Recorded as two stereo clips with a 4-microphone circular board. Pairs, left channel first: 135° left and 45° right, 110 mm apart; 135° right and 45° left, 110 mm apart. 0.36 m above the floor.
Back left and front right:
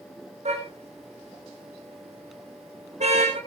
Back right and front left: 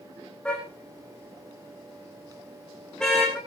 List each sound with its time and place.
0.5 s a car horn: 55° right, 10 m; by 3.4 s 50° right, 12.5 m